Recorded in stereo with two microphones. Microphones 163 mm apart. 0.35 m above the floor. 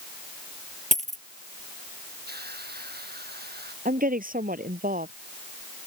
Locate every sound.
0.9 s a dropped coin: 50° right (ahead or behind)
2.3 s a hiss: 80° right
3.9 s a woman speaking: 60° right (ahead or behind)